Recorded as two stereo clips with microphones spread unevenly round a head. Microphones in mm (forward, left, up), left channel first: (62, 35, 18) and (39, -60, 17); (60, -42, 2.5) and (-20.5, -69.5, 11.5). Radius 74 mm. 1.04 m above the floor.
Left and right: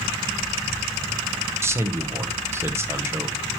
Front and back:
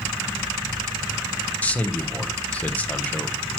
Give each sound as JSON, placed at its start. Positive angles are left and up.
{"t": 1.6, "sound": "a man speaking", "azimuth_deg": -45, "distance_m": 1.0}